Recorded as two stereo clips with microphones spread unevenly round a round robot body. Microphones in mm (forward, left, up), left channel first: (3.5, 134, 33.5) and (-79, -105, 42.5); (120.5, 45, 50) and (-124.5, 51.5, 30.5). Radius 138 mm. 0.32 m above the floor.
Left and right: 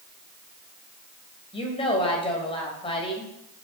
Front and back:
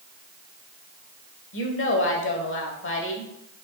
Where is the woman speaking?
10° left, 1.8 m.